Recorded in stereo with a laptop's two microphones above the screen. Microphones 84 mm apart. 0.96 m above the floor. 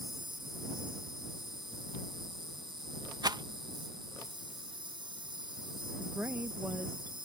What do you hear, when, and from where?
0.0 s an insect: 70° right (ahead or behind)
3.2 s a rattle: 55° right (ahead or behind)
6.0 s a woman speaking: 25° right (ahead or behind)